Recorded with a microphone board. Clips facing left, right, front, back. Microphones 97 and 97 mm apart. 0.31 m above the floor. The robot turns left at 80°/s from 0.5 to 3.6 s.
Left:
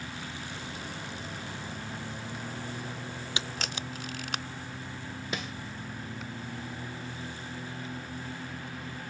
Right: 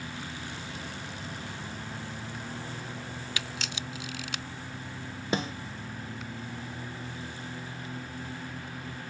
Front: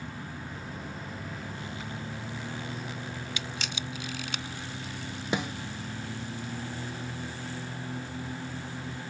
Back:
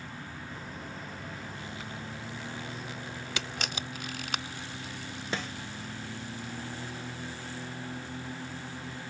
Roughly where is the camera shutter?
Behind left.